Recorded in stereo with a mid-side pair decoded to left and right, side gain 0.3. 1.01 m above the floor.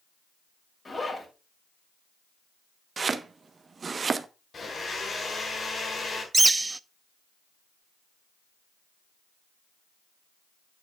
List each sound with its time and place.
0.8 s a zipper: 40° left, 6 m
3.0 s chopping: 50° right, 0.9 m
4.5 s a blender: 60° left, 4.5 m
6.3 s a bird: 25° right, 0.6 m